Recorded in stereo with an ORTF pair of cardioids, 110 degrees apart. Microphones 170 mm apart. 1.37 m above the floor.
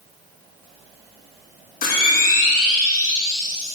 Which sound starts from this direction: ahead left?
A camera shutter, at 1.8 s.